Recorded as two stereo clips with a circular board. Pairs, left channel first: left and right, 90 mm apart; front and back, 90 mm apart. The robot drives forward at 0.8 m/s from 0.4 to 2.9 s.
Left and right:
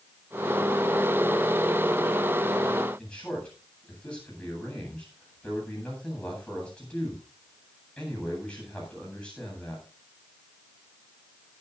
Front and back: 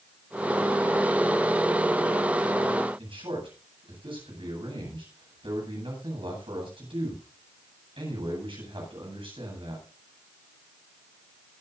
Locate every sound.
3.0 s a man speaking: 170° left, 9 m